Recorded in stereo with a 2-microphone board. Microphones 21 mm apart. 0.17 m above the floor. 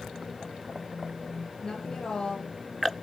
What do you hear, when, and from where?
1.6 s a woman speaking: 40° left (ahead or behind), 6 m; by 2.9 s 30° left (ahead or behind), 5.5 m